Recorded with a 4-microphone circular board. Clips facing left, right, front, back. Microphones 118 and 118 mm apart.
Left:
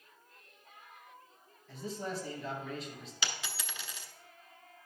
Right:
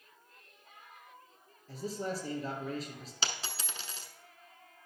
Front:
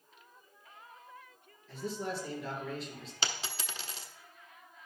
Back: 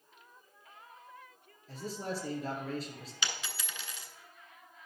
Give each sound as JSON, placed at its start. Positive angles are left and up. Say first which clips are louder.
{"t": 1.7, "sound": "a man speaking", "louder": "right 2 dB, front 1 dB", "azimuth_deg": -135, "distance_m": 2.5}
{"t": 3.2, "sound": "a dropped coin", "louder": "right 1 dB, front 2 dB", "azimuth_deg": -45, "distance_m": 0.9}